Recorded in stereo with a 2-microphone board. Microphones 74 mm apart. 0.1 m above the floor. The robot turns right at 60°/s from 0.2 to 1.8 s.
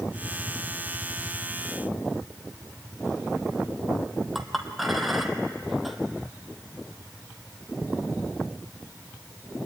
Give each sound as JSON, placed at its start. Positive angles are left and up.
{"t": 4.3, "sound": "a clink", "side_deg": 0, "distance_m": 1.8}